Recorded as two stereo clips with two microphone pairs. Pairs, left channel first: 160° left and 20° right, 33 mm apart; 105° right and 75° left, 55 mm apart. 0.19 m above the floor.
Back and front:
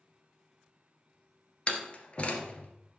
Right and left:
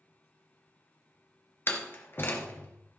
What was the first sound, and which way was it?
A door slam, 145° right.